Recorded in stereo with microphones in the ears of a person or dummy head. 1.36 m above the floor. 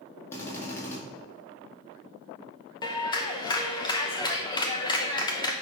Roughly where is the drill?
Left.